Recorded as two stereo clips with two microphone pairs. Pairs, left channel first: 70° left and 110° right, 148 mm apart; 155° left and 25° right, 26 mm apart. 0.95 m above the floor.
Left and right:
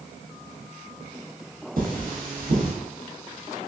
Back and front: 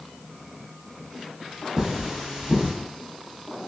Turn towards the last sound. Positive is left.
turn(degrees=-95)